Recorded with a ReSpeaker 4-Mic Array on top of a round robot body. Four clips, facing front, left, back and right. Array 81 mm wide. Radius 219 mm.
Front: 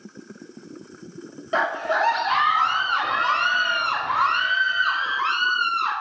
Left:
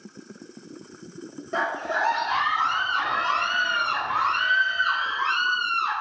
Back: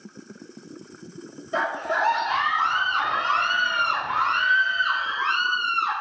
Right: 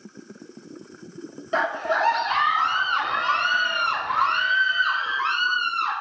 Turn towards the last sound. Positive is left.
turn(degrees=-25)